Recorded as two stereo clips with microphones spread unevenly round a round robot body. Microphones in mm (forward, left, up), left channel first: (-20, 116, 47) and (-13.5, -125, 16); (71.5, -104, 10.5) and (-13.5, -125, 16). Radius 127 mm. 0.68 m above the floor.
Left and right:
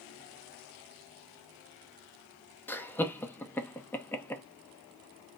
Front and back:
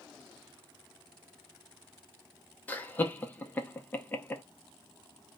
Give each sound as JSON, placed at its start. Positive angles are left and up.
{"t": 2.7, "sound": "laughter", "azimuth_deg": 5, "distance_m": 0.6}